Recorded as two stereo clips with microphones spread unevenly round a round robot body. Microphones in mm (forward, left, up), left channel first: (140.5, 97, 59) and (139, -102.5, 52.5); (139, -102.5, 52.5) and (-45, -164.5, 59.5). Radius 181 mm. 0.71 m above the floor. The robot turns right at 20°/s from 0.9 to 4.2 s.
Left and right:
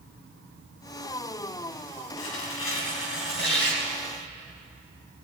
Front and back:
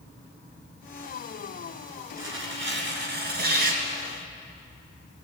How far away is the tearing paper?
About 2 m.